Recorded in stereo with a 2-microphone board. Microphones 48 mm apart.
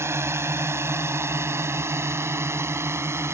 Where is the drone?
70° right (ahead or behind).